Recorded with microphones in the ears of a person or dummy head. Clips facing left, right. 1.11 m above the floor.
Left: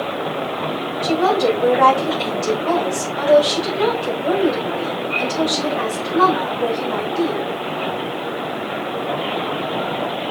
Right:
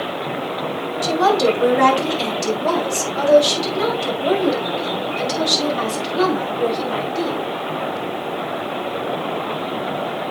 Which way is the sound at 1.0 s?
90° right.